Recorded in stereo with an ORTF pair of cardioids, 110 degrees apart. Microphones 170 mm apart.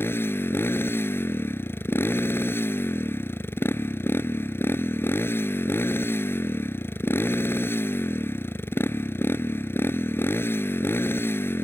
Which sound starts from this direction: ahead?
A motorcycle, at 0.0 s.